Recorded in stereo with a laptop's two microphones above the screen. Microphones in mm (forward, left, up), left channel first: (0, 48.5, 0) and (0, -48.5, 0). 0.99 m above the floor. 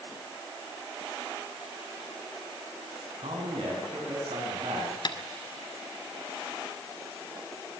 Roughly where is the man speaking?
Right.